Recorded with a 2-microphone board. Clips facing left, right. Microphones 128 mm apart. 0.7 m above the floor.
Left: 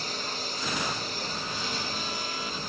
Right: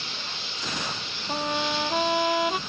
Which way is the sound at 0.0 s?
40° left (ahead or behind).